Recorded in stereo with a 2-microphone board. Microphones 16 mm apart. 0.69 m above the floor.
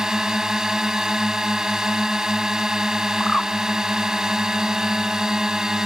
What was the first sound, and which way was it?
A drone, 40° right (ahead or behind).